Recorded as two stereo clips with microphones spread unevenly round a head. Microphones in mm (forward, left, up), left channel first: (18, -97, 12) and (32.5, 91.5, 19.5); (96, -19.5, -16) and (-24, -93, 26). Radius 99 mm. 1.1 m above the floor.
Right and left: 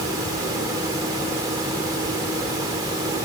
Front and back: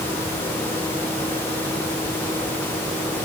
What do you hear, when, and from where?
Only background noise.